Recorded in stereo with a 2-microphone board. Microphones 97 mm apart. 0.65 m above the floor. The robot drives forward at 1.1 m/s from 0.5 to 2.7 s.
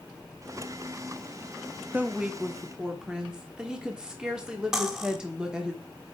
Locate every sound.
1.9 s a woman speaking: 15° right (ahead or behind), 0.6 m; by 5.7 s 10° right (ahead or behind), 1.2 m
4.7 s cutlery clinking: 5° right (ahead or behind), 1.0 m